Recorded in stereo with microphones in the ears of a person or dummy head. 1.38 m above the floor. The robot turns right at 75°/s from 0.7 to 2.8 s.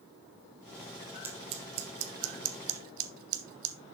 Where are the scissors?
15° right (ahead or behind), 1.2 m; by 3.8 s 50° right (ahead or behind), 1.2 m.